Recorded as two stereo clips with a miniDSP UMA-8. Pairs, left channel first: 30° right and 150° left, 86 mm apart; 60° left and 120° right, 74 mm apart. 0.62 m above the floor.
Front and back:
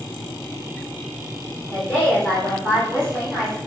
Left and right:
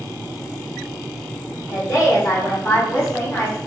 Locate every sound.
1.7 s a woman speaking: 50° left, 1.7 m; by 3.6 s 65° left, 1.0 m